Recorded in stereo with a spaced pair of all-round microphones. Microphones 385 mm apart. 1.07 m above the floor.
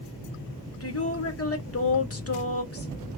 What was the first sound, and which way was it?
A woman speaking, 35° left (ahead or behind).